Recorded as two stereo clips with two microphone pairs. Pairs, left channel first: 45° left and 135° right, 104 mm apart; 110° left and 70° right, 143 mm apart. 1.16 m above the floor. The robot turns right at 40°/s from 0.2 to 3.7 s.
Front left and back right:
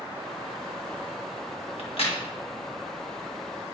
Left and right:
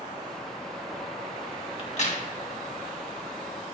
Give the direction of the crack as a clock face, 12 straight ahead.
10 o'clock.